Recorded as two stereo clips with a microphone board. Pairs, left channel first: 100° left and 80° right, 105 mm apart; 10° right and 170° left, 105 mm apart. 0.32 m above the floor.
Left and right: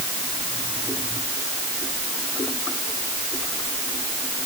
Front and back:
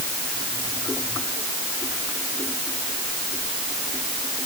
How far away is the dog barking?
I don't hear a dog barking.